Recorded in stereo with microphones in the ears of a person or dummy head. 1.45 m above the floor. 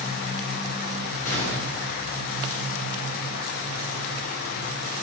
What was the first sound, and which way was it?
A gunshot, 40° left (ahead or behind).